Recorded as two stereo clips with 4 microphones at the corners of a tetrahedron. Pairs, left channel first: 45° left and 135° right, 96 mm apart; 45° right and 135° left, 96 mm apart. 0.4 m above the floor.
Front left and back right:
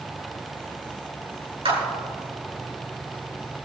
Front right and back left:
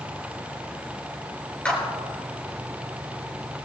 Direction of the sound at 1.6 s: 120° right.